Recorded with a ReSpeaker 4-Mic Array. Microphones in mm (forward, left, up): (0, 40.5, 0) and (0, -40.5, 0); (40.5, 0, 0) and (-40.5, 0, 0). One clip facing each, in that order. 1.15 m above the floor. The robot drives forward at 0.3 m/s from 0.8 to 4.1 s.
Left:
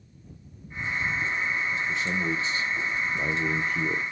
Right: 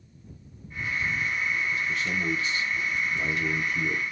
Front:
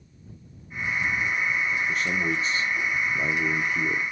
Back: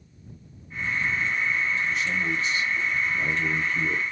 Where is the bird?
I don't hear a bird.